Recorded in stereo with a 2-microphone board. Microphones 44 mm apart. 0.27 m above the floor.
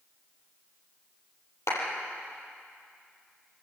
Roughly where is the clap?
Left.